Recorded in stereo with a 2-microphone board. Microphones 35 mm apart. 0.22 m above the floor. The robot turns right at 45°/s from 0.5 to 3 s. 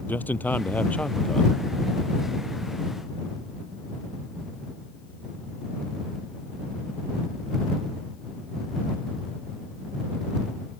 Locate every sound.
0.1 s a man speaking: 115° left; by 1.5 s 160° left